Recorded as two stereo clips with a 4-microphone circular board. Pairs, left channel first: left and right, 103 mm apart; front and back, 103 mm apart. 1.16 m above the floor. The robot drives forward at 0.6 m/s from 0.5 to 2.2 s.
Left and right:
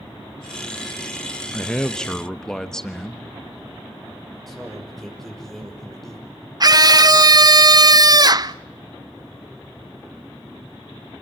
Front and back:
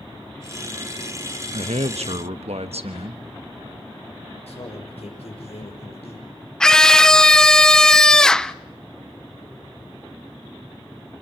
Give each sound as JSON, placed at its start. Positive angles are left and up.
{"t": 1.5, "sound": "a man speaking", "azimuth_deg": 170, "distance_m": 0.8}
{"t": 4.5, "sound": "a man speaking", "azimuth_deg": 0, "distance_m": 5.5}
{"t": 6.6, "sound": "a scream", "azimuth_deg": -80, "distance_m": 0.5}